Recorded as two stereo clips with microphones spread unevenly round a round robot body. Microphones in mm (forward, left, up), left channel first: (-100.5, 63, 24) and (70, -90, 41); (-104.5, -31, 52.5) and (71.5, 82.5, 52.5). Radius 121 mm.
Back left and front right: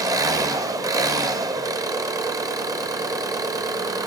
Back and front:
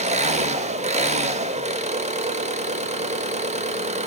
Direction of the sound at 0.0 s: 25° left.